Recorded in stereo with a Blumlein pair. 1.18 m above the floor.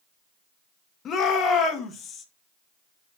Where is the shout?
30° left, 1.8 m.